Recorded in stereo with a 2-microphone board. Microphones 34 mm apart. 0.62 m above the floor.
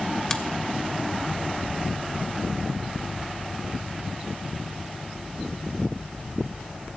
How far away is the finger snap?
About 1.0 m.